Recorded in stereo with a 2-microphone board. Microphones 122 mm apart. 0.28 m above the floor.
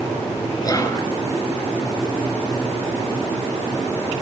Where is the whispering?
30° left (ahead or behind), 4.5 m.